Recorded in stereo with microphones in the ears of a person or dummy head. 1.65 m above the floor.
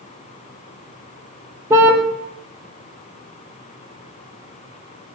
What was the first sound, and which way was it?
A car horn, 15° right (ahead or behind).